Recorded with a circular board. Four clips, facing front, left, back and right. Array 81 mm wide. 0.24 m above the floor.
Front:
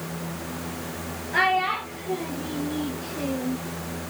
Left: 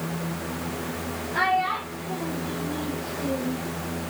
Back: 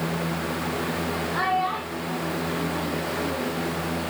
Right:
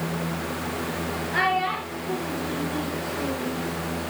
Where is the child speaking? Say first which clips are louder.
Left 1 dB, front 3 dB; 30° right, 4 m; by 3.6 s 15° right, 4.5 m.